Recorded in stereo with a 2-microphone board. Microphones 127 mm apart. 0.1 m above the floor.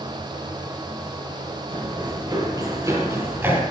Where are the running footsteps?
40° right (ahead or behind), 5 m; by 3.6 s 15° right (ahead or behind), 4.5 m.